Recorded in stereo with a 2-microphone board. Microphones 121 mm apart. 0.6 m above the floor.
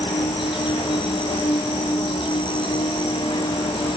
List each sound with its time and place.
0.0 s an insect: 50° left (ahead or behind), 1.1 m